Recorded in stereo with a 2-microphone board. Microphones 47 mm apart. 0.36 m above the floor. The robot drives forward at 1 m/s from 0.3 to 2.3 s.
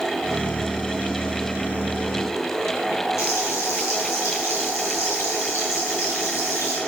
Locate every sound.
3.2 s frying: 75° left (ahead or behind), 5 m